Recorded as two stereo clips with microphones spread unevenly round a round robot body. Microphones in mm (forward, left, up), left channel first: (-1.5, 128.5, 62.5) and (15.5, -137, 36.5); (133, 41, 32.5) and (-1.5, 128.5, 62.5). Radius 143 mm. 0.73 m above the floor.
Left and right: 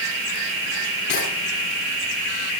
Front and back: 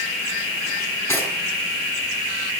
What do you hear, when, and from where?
1.1 s cutlery clinking: 45° left, 8 m